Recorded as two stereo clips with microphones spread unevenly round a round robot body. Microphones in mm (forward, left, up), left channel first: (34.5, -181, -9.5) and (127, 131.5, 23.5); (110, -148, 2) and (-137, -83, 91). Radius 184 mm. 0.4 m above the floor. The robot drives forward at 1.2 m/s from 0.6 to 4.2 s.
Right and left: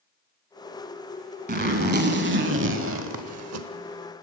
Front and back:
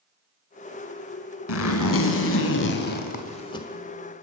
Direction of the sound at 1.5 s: 10° left.